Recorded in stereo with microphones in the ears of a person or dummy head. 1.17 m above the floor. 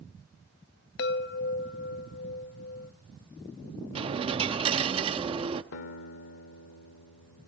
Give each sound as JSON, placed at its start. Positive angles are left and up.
{"t": 1.0, "sound": "a chime", "side_deg": 55, "distance_m": 0.8}
{"t": 4.0, "sound": "a dropped coin", "side_deg": -25, "distance_m": 0.7}
{"t": 5.7, "sound": "a guitar", "side_deg": 65, "distance_m": 1.9}